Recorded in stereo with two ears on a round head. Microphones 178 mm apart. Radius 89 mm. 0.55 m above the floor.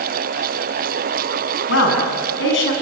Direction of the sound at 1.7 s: 65° left (ahead or behind).